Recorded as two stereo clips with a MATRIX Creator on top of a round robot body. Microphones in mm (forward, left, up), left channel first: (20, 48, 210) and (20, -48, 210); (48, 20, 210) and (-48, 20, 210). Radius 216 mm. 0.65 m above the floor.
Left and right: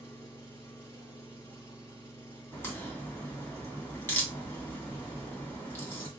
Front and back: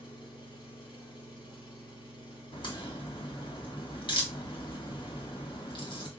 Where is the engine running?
35° left, 3.5 m.